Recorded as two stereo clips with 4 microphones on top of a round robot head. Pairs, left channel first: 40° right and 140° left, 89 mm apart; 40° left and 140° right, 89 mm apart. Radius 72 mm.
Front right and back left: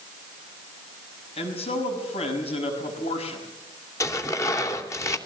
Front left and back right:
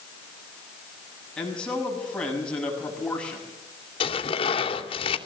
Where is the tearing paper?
20° left, 2.5 m.